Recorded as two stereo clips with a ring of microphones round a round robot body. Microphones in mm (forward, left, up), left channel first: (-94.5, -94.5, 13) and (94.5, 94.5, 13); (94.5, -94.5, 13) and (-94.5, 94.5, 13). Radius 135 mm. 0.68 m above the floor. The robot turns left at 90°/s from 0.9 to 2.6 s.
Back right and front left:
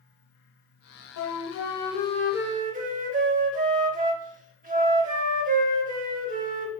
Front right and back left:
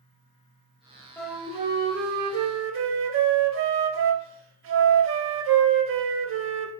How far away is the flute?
About 0.6 m.